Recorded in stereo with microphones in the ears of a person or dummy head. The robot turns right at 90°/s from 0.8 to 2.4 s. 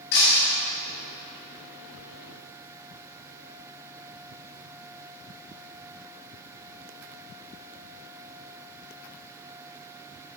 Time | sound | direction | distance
0.1 | breaking glass | 60° left (ahead or behind) | 2 m